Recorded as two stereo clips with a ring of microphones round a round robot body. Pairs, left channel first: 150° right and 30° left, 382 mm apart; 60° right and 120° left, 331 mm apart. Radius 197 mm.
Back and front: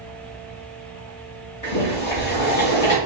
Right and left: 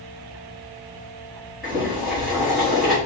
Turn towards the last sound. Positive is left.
turn(degrees=-150)